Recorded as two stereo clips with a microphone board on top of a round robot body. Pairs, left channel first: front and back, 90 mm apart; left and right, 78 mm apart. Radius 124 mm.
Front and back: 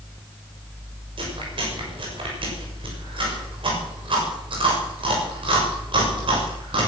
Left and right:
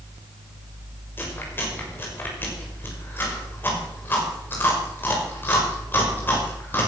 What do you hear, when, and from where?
1.2 s chewing: 155° left, 6.5 m